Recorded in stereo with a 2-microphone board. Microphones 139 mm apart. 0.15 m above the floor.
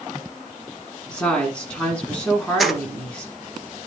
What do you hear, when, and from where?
1.1 s a woman speaking: 10° left (ahead or behind), 1.8 m
2.6 s keys jangling: centre (ahead or behind), 1.7 m